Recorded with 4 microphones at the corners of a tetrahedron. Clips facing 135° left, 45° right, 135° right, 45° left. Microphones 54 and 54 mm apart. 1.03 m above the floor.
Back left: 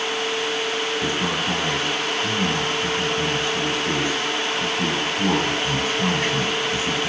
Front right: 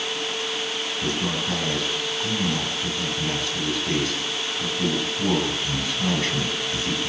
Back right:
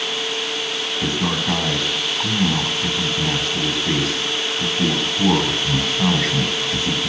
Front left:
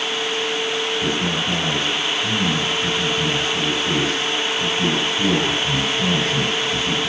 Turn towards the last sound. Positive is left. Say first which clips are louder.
# back left 3 dB, even
turn(degrees=-155)